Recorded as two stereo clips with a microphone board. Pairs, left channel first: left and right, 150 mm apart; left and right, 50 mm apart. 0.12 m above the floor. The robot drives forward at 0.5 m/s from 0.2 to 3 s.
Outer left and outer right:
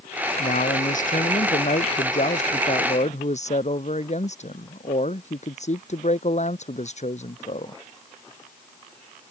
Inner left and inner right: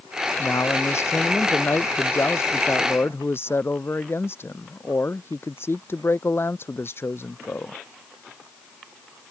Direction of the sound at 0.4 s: 65° left (ahead or behind).